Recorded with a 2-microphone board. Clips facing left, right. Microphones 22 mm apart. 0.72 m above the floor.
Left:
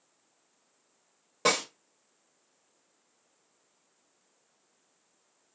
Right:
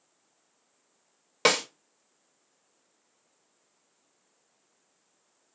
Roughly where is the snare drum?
Right.